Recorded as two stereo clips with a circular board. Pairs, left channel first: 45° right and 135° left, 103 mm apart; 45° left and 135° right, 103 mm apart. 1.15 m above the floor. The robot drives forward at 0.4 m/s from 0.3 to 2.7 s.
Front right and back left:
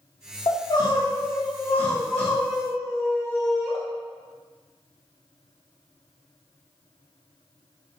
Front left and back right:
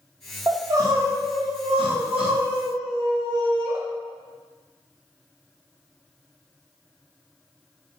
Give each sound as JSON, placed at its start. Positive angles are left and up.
{"t": 0.5, "sound": "crying", "azimuth_deg": -70, "distance_m": 0.7}